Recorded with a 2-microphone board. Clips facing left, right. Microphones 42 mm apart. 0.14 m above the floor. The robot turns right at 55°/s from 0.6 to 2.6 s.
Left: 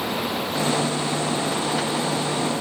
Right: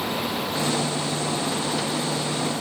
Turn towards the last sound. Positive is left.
No sound to turn to.